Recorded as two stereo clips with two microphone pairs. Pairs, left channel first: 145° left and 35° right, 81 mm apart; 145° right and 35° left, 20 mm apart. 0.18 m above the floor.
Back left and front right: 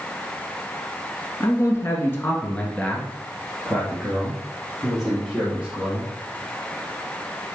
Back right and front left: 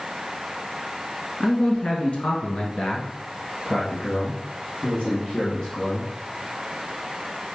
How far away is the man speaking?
About 1.6 m.